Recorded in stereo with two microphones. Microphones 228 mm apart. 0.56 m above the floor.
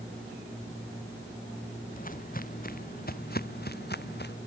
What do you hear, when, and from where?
1.9 s footsteps: 35° left (ahead or behind); by 4.3 s 45° left (ahead or behind)